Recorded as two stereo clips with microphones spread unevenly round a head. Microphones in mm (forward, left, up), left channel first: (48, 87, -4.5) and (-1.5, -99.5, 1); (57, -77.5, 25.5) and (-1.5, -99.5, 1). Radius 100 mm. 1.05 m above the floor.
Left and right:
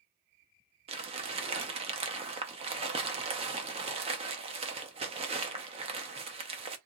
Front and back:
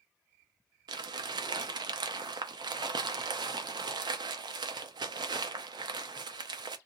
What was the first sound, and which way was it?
Crumpling, 160° right.